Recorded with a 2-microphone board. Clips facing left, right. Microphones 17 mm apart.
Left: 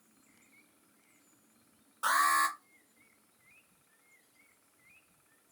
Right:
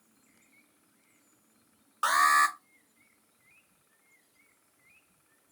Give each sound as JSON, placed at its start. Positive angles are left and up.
{"t": 2.0, "sound": "an alarm", "side_deg": -45, "distance_m": 0.9}